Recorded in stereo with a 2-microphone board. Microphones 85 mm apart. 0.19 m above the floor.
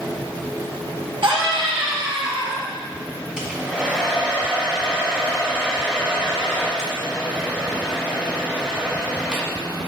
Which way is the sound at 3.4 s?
10° right (ahead or behind).